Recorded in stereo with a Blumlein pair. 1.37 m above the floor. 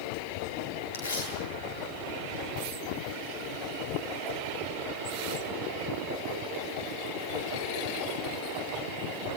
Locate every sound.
0.9 s tearing paper: 65° left, 10 m